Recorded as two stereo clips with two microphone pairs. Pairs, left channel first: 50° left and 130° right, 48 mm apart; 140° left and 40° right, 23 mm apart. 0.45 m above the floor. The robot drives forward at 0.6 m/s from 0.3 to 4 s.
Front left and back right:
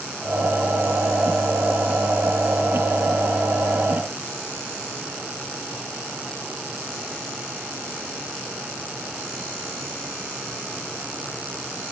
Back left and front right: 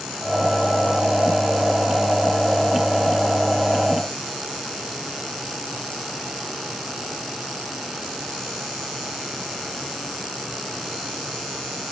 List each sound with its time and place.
Only background noise.